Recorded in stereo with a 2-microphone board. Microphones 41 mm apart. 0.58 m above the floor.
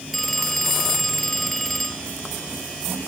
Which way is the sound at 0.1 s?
5° left (ahead or behind).